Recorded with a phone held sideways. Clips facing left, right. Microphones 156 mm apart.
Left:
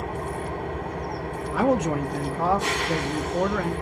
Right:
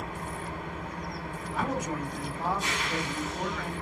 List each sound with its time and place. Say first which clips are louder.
0.0 s an engine running: left 7 dB; 75° left (ahead or behind), 2 m
1.5 s a man speaking: left 10 dB; 85° left, 1.3 m